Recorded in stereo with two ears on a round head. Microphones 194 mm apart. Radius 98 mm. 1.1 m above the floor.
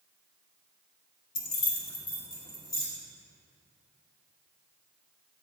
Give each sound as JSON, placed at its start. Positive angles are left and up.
{"t": 1.4, "sound": "keys jangling", "side_deg": 55, "distance_m": 0.8}